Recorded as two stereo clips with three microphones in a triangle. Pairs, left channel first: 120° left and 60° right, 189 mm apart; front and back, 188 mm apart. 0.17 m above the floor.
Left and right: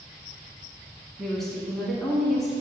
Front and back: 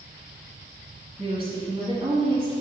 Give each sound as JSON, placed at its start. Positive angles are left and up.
{"t": 1.2, "sound": "a woman speaking", "azimuth_deg": -150, "distance_m": 1.3}